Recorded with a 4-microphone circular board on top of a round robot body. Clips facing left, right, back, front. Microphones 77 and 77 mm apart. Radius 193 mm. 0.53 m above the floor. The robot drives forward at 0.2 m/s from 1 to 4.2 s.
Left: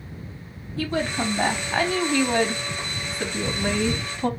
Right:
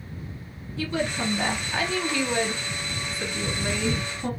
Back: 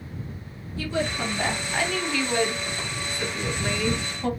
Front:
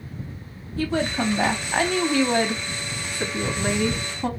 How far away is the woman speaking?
About 1.6 m.